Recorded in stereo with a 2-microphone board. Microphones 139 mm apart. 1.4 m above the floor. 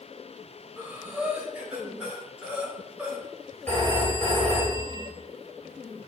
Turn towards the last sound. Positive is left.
turn(degrees=15)  # may be behind; listen again after turning